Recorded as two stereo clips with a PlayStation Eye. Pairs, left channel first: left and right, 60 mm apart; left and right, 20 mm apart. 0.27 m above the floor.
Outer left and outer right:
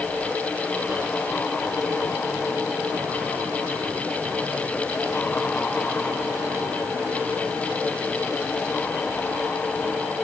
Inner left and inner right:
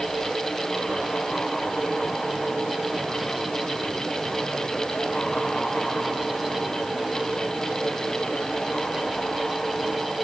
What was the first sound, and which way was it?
Only background noise.